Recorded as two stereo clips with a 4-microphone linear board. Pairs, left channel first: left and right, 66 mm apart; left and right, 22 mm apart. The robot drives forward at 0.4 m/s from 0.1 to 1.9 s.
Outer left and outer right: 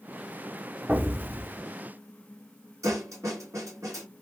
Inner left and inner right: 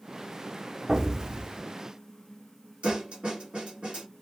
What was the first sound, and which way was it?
An explosion, 30° right (ahead or behind).